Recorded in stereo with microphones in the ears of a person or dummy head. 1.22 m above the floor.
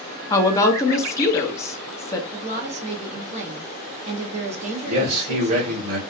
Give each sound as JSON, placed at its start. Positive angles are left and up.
{"t": 0.3, "sound": "a woman speaking", "side_deg": 20, "distance_m": 0.5}
{"t": 2.3, "sound": "a woman speaking", "side_deg": -30, "distance_m": 0.6}
{"t": 4.9, "sound": "a man speaking", "side_deg": -45, "distance_m": 1.1}